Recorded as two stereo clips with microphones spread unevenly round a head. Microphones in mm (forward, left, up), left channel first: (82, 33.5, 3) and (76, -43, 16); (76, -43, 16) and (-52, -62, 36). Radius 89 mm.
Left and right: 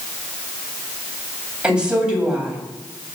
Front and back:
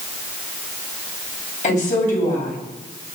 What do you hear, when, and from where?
1.6 s a woman speaking: 20° right, 9.5 m